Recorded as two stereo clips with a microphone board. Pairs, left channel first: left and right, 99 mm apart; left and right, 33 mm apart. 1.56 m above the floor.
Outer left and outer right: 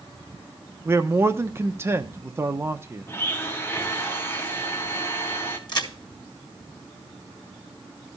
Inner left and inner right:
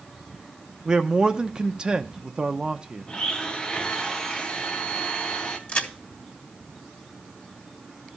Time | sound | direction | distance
0.8 | a man speaking | 25° right (ahead or behind) | 0.8 m
3.1 | a blender | 25° left (ahead or behind) | 1.3 m
5.7 | a crack | 50° left (ahead or behind) | 1.8 m